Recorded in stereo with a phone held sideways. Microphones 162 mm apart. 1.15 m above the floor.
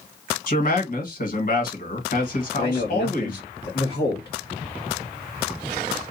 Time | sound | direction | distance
0.5 | a man speaking | 55° left (ahead or behind) | 1.4 m
2.6 | a man speaking | 70° left (ahead or behind) | 1.3 m